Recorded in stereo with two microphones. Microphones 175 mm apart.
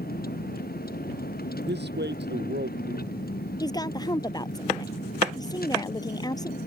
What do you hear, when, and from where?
0.0 s a vehicle: 60° left (ahead or behind)
1.7 s a man speaking: 75° right (ahead or behind)
3.6 s a woman speaking: 20° left (ahead or behind)